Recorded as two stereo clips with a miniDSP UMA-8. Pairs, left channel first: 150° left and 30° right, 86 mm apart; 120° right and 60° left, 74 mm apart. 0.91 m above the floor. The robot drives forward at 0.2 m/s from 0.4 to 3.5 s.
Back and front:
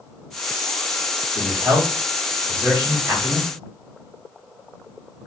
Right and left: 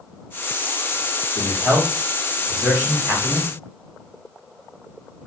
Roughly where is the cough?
No cough in this recording.